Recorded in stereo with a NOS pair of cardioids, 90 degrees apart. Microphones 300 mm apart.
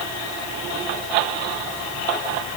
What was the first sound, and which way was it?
Only background noise.